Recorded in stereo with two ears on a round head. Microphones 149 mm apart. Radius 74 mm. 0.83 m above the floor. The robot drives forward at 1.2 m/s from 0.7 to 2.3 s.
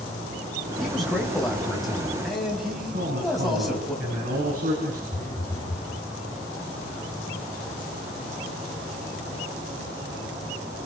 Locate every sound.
0.8 s a man speaking: centre (ahead or behind), 4 m
2.9 s a man speaking: 55° right (ahead or behind), 8 m
5.1 s a phone buzzing: 20° left (ahead or behind), 6 m